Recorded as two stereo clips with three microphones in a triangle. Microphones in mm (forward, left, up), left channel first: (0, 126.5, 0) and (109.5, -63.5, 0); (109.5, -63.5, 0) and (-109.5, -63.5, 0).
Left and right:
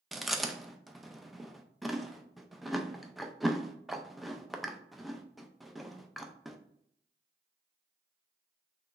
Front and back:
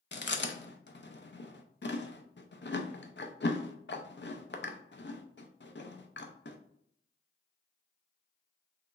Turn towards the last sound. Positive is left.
turn(degrees=30)